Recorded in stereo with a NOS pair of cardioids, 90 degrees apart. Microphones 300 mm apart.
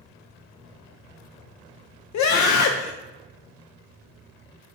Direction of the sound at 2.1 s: 65° left.